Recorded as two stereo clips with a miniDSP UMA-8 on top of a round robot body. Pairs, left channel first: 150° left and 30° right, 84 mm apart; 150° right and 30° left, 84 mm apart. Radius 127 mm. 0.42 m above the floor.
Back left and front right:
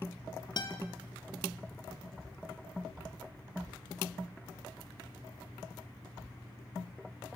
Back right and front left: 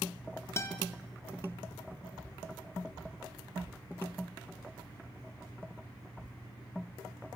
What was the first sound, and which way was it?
A guitar, 160° left.